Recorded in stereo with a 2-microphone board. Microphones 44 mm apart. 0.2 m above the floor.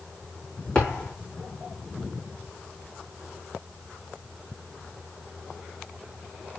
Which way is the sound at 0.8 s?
20° left (ahead or behind).